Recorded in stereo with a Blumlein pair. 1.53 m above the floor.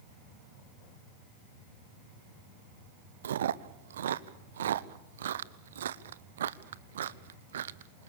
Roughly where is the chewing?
Ahead right.